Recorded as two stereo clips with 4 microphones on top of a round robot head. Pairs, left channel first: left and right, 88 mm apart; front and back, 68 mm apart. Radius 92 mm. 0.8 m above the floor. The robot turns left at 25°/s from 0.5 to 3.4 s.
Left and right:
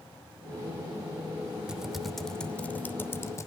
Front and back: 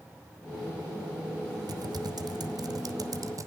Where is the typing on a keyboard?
170° right, 1.0 m; by 3.5 s 145° left, 1.0 m.